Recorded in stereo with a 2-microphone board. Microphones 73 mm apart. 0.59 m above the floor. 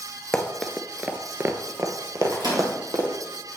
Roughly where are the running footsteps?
Centre.